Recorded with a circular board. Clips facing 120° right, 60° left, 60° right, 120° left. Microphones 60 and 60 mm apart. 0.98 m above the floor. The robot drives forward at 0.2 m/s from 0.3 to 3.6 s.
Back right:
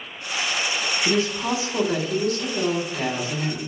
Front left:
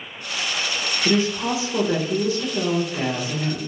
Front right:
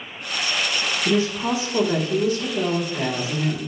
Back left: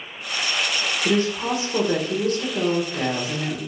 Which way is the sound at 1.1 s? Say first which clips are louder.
Front left 3 dB, even; 100° left.